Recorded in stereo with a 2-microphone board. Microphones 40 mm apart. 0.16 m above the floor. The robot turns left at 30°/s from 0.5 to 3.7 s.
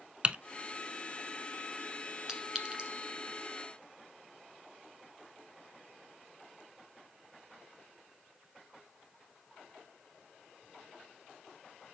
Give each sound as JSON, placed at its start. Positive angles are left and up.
{"t": 0.2, "sound": "typing on a keyboard", "side_deg": -30, "distance_m": 0.6}
{"t": 2.3, "sound": "a clink", "side_deg": -15, "distance_m": 1.4}